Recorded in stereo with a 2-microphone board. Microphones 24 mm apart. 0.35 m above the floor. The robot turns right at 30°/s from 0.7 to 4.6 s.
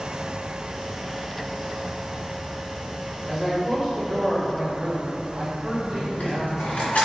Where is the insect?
25° right, 0.9 m; by 7.1 s 90° left, 0.9 m.